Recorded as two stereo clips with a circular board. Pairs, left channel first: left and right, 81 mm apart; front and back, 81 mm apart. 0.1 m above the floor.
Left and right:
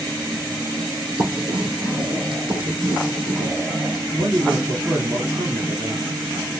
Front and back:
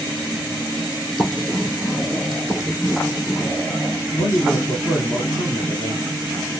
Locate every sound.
1.2 s writing: 90° right, 1.9 m
4.2 s a man speaking: 40° right, 2.5 m